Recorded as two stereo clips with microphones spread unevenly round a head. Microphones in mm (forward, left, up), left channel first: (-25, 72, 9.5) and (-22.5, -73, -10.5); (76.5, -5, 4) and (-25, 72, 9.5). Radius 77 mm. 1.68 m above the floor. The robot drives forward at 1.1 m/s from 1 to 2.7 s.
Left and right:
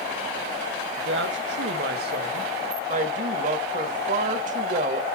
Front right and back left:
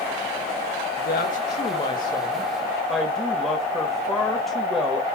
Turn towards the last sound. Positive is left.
turn(degrees=-125)